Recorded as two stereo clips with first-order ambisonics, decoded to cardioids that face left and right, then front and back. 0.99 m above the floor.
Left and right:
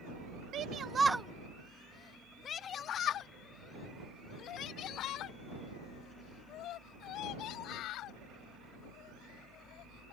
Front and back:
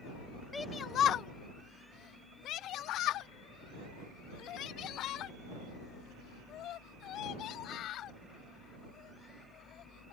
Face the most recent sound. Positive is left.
turn(degrees=50)